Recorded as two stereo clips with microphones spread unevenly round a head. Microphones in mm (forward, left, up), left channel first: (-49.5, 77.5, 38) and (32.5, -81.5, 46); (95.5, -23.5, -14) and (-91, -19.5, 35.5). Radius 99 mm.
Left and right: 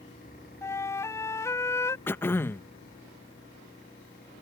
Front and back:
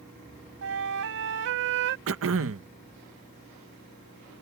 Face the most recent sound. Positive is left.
turn(degrees=-165)